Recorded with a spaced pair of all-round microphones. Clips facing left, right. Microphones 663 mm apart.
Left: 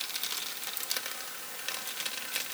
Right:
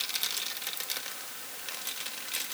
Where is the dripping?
I don't hear dripping.